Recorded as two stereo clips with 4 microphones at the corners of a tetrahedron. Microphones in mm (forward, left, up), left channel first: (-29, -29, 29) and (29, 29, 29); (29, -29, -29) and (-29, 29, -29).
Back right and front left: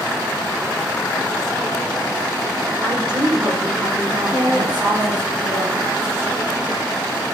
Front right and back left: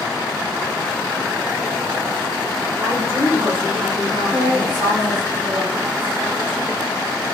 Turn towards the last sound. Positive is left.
turn(degrees=50)